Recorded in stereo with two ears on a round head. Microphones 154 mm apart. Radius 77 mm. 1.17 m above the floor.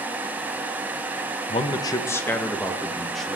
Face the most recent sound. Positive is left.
turn(degrees=0)  # may be behind; listen again after turning